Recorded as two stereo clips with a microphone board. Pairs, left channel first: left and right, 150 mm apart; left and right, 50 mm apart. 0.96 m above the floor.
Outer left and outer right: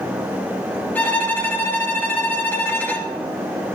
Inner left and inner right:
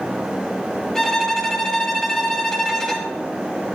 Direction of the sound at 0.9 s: 10° left (ahead or behind).